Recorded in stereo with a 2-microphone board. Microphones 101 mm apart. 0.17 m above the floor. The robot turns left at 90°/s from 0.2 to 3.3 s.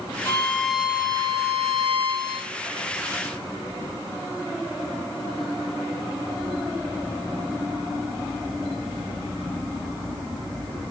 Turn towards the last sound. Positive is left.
turn(degrees=120)